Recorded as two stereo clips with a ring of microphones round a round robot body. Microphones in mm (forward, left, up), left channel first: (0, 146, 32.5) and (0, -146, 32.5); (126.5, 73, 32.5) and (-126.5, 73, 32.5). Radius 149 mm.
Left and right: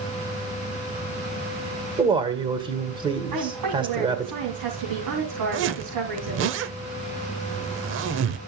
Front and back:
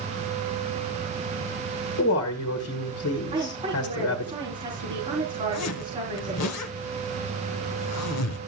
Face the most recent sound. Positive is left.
turn(degrees=-40)